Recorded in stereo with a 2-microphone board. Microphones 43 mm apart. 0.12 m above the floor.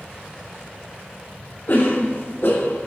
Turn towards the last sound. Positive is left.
turn(degrees=65)  # may be behind; listen again after turning